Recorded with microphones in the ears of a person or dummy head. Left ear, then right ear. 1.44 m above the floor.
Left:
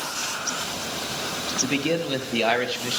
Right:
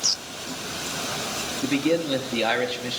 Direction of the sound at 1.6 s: 10° left (ahead or behind).